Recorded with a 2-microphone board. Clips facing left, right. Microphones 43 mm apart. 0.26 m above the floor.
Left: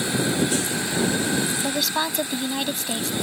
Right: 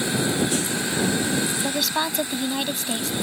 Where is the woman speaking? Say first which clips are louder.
Even; centre (ahead or behind).